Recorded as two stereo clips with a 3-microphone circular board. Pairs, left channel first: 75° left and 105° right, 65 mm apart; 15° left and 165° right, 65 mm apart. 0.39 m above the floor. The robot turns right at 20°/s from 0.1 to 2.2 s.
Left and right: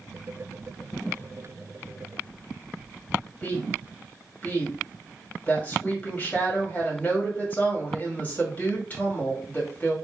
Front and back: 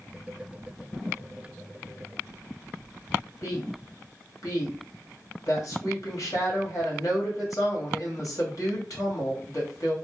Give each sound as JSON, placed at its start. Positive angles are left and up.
{"t": 3.4, "sound": "a woman speaking", "azimuth_deg": 10, "distance_m": 1.9}